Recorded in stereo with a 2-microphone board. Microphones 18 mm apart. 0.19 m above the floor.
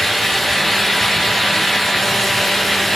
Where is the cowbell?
No cowbell in this recording.